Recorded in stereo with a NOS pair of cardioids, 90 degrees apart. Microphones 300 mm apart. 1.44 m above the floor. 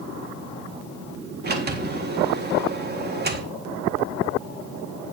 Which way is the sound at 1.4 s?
30° right.